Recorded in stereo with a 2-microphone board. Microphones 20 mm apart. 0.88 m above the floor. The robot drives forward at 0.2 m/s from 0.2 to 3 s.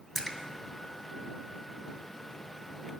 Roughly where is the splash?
Centre.